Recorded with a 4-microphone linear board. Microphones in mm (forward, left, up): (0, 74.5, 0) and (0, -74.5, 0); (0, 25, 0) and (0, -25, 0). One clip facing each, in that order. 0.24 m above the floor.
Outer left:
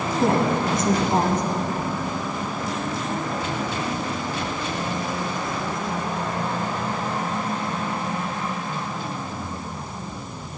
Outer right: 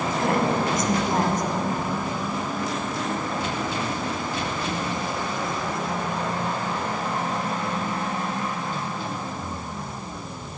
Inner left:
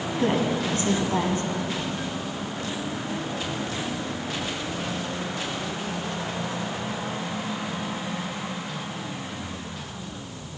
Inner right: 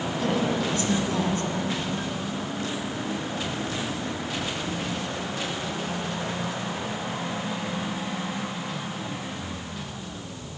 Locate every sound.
0.2 s a woman speaking: 30° left (ahead or behind), 2.0 m